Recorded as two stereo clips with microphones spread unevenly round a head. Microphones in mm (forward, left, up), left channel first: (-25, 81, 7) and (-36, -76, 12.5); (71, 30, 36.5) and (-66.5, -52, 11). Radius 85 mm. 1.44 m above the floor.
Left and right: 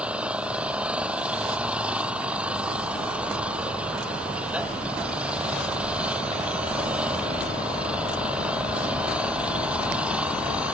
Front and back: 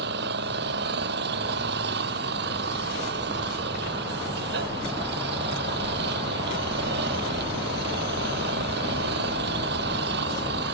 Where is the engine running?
175° right.